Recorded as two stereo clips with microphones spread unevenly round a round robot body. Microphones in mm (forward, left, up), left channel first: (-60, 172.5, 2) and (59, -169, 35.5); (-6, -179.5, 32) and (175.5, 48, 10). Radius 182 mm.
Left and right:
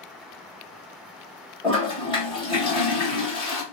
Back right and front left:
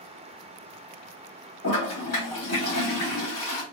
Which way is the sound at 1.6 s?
175° right.